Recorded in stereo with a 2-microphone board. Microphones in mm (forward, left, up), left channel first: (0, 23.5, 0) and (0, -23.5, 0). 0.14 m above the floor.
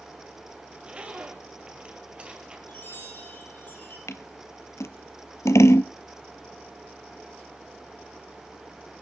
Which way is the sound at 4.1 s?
75° left (ahead or behind).